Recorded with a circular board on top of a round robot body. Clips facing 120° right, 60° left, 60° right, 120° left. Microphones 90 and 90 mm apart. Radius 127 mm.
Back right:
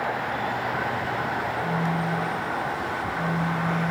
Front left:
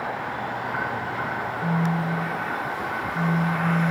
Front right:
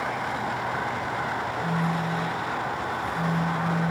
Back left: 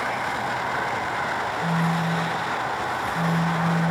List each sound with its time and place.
1.6 s a phone buzzing: 65° left, 6 m